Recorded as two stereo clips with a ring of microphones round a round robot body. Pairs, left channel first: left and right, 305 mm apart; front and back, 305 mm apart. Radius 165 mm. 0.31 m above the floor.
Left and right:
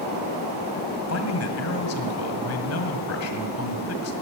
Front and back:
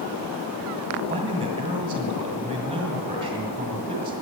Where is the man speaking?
110° left, 1.7 m.